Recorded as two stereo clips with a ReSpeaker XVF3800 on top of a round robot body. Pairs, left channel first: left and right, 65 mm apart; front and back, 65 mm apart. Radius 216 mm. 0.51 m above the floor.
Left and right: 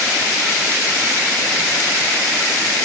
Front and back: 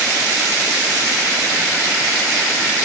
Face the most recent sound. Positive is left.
No sound to turn to.